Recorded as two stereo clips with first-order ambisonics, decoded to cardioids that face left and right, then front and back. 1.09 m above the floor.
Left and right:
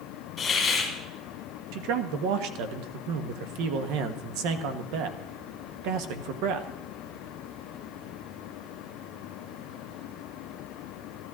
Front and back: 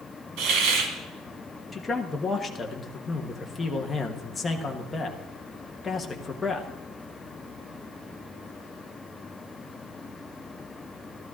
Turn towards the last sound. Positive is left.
turn(degrees=-80)